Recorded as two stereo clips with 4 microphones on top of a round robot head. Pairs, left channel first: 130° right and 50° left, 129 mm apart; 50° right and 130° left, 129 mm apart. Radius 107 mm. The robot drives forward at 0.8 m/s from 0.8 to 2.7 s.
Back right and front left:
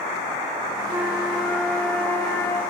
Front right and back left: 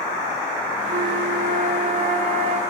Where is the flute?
130° left, 0.8 m; by 2.6 s 160° left, 2.0 m.